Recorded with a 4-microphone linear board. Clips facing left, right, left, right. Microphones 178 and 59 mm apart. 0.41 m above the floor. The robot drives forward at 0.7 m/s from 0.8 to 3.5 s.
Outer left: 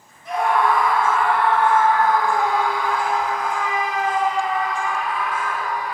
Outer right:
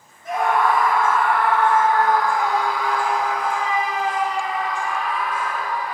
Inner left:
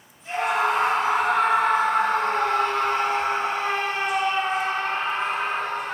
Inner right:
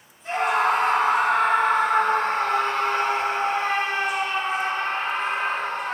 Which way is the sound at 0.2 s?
50° right (ahead or behind).